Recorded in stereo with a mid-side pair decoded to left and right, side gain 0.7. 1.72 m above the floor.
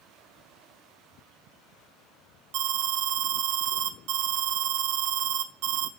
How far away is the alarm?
About 0.5 m.